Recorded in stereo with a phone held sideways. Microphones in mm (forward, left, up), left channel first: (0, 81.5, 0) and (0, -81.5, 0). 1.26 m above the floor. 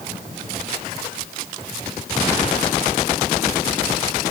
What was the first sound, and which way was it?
Only background noise.